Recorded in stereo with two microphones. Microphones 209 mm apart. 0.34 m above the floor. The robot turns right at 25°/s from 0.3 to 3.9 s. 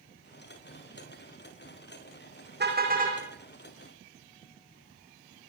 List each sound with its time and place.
2.6 s a car horn: 50° right (ahead or behind), 7.5 m; by 3.2 s 35° right (ahead or behind), 7.5 m